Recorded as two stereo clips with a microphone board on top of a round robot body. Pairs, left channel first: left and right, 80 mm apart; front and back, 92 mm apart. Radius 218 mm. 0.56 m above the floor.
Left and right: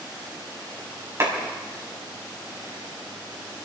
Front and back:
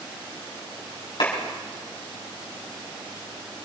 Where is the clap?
40° right, 5.5 m.